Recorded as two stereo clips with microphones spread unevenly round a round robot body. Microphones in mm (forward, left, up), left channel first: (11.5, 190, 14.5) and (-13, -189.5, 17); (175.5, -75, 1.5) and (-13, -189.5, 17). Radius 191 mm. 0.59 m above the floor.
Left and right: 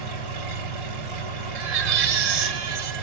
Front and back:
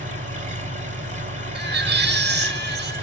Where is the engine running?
90° right, 3 m.